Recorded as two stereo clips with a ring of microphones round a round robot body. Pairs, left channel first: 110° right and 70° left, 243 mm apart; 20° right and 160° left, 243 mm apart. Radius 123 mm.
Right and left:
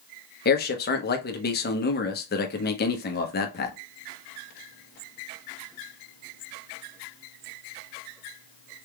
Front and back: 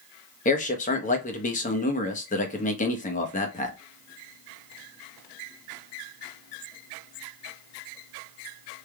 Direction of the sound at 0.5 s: 75° right.